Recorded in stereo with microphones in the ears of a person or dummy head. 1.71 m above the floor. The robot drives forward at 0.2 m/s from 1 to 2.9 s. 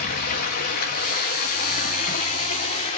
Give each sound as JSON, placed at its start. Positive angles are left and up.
{"t": 0.0, "sound": "running water", "side_deg": 50, "distance_m": 1.2}